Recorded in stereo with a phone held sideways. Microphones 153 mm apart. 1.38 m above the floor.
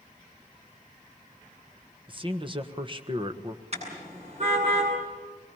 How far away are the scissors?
I don't hear scissors.